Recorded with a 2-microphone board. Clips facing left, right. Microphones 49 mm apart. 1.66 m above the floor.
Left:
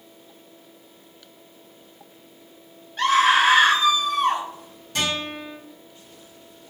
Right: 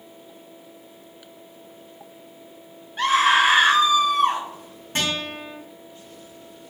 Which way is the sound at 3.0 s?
10° right (ahead or behind).